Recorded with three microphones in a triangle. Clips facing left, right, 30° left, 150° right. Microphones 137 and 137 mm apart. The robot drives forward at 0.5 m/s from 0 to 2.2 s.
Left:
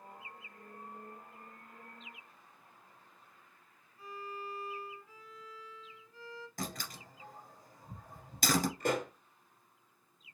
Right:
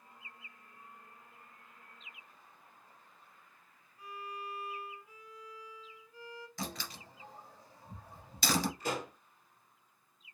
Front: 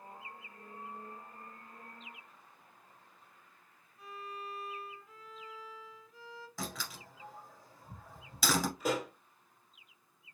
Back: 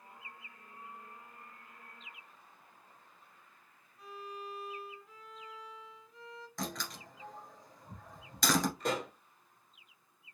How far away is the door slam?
About 1.8 m.